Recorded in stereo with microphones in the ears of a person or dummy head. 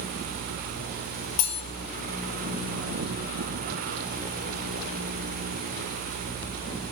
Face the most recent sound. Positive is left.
turn(degrees=60)  # may be behind; listen again after turning